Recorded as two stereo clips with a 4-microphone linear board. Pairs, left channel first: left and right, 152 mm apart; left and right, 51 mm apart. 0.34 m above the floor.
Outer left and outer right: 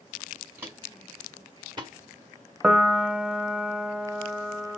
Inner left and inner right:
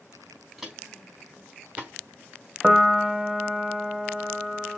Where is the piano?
5° right (ahead or behind), 0.5 m.